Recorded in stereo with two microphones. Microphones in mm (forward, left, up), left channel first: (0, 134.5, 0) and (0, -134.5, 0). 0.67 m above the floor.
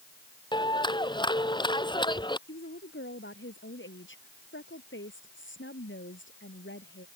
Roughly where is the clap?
Centre.